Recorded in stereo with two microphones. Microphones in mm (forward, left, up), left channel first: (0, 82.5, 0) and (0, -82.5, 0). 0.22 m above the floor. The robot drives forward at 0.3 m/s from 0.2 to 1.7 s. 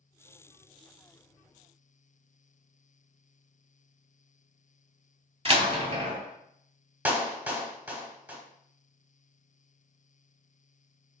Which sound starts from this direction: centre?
A clap, at 7.0 s.